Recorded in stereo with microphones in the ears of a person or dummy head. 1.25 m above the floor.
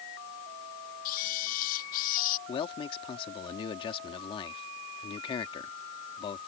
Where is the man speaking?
25° left (ahead or behind).